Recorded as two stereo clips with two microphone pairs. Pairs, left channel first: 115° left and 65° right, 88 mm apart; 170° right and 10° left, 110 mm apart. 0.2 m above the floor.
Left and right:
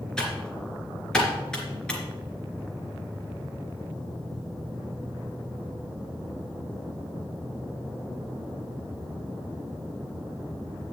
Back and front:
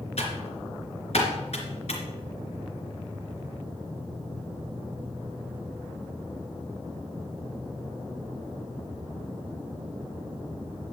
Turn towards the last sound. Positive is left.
turn(degrees=-165)